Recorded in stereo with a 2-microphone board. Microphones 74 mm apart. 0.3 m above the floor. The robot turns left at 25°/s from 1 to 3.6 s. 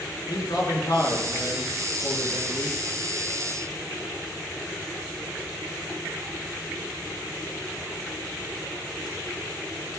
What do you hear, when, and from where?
0.3 s a man speaking: 110° left, 5 m; by 2.8 s 70° left, 5 m